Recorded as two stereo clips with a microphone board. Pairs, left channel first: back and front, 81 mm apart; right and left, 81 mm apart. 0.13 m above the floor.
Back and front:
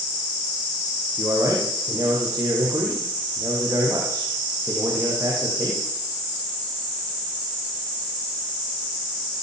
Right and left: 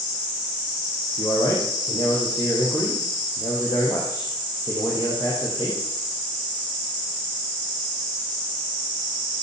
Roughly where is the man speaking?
Ahead right.